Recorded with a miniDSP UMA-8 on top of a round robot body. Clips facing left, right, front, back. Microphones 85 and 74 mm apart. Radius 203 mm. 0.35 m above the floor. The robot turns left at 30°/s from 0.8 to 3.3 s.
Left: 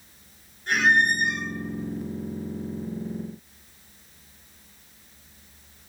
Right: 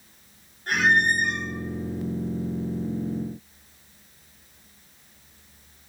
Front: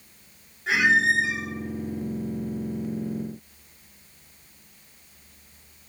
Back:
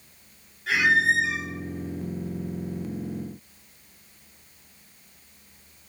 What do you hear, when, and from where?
0.7 s a squeak: 60° right, 1.2 m; by 1.5 s 80° right, 1.2 m